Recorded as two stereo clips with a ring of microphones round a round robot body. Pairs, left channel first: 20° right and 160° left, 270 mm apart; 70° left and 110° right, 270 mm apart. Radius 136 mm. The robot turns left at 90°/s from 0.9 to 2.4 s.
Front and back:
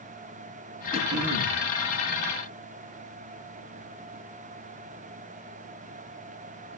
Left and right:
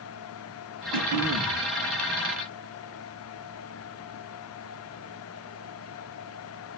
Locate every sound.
0.9 s throat clearing: 130° right, 4.5 m; by 1.6 s 165° left, 4.5 m